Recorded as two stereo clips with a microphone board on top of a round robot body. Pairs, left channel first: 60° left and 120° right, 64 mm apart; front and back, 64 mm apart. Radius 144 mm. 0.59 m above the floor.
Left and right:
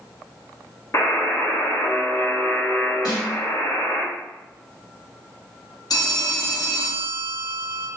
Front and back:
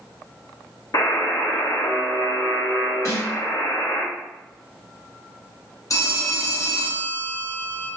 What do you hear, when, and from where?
0.9 s a buzzer: 15° left, 1.1 m
3.0 s a snare drum: 45° left, 1.6 m
5.9 s a phone ringing: 40° left, 1.0 m